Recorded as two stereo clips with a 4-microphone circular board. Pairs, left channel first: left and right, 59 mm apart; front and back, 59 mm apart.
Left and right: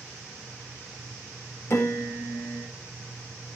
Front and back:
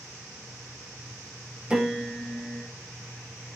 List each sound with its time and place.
1.7 s a piano: 110° left, 1.3 m